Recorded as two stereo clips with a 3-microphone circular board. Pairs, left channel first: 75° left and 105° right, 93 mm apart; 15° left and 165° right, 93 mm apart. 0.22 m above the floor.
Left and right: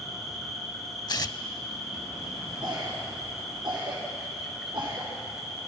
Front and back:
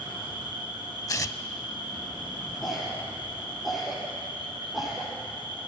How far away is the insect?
About 4 m.